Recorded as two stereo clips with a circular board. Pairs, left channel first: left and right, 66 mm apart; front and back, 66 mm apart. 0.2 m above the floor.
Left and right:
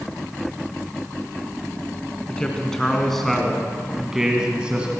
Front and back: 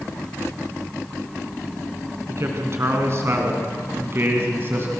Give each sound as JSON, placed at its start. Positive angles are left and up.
{"t": 2.3, "sound": "a man speaking", "azimuth_deg": 160, "distance_m": 2.5}